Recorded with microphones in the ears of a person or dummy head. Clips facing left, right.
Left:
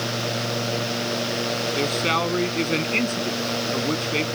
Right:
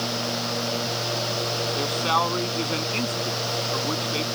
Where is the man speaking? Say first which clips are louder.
Left 1 dB; 25° left (ahead or behind).